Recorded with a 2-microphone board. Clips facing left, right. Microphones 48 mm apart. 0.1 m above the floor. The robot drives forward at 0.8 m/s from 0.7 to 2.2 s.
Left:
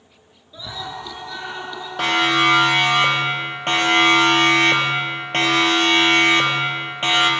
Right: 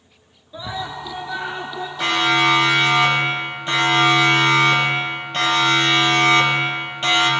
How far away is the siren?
About 4 m.